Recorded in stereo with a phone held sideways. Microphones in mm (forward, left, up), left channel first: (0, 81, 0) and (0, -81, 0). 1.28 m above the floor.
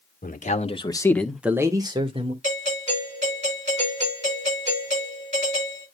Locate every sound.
0.2 s a man speaking: 60° left (ahead or behind), 1.7 m; by 2.3 s 40° right (ahead or behind), 2 m
2.4 s a doorbell: 45° right (ahead or behind), 7.5 m